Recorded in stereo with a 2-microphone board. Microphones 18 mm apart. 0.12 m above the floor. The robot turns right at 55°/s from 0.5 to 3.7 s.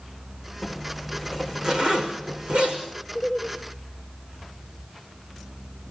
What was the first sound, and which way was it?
A zipper, 5° left (ahead or behind).